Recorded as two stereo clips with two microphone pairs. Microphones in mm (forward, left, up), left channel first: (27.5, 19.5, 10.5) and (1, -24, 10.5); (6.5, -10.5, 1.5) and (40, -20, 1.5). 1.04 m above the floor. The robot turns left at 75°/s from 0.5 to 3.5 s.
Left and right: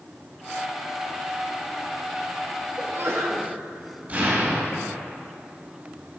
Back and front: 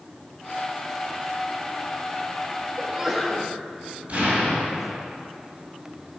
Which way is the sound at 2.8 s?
70° right.